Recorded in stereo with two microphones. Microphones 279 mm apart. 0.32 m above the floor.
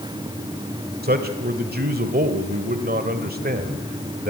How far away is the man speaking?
About 1.4 m.